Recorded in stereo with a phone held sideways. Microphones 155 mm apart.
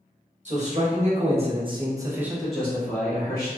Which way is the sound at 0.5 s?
45° right (ahead or behind).